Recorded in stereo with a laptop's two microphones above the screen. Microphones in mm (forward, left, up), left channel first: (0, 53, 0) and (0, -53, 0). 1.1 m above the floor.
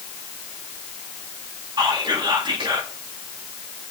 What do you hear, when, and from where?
1.8 s whispering: 45° right (ahead or behind), 2 m